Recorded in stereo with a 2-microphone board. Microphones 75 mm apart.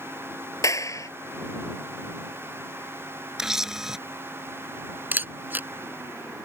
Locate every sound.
0.6 s a clap: 45° left (ahead or behind)
3.4 s a camera shutter: 5° right (ahead or behind)
5.1 s a camera shutter: 25° right (ahead or behind)